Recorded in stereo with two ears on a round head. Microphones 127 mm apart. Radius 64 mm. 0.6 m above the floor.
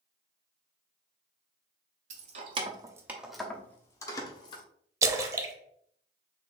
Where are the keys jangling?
50° right (ahead or behind), 0.8 m; by 4.6 s 30° left (ahead or behind), 1.1 m.